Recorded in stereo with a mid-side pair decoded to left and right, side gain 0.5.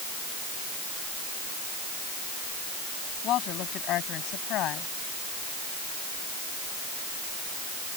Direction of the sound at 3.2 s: 70° left.